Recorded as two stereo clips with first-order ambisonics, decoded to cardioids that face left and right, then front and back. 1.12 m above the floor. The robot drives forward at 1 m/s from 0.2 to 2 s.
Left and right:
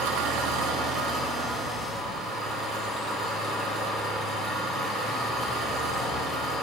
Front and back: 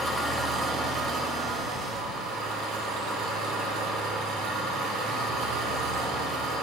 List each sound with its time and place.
0.0 s an engine running: 85° right, 0.9 m; by 6.6 s 155° right, 1.9 m